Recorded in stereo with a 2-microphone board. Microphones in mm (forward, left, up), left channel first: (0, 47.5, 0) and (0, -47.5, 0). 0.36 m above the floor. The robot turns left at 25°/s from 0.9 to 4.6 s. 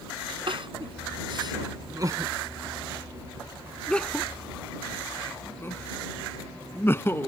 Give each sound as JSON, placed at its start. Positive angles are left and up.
{"t": 0.5, "sound": "crying", "side_deg": -60}